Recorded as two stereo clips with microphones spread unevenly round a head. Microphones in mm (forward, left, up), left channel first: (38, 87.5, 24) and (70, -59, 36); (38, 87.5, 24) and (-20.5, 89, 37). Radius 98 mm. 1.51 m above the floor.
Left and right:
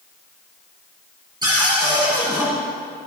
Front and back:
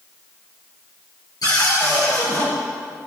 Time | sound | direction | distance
1.4 | a cupboard door | 20° right | 4.5 m